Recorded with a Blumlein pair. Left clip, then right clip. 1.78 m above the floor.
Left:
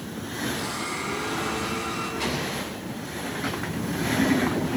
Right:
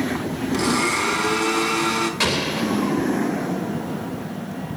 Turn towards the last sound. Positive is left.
turn(degrees=-55)